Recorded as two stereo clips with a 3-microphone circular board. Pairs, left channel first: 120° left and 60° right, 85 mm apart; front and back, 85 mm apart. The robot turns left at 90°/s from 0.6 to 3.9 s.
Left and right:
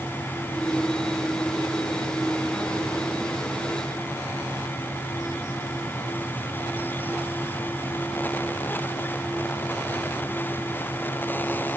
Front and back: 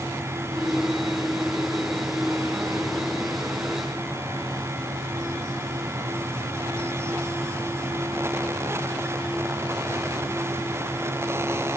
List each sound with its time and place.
Only background noise.